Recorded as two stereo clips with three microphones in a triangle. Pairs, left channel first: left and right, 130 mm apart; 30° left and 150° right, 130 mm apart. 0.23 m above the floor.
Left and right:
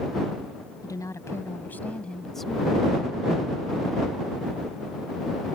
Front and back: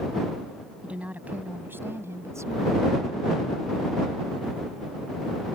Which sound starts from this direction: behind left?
A woman speaking, at 0.8 s.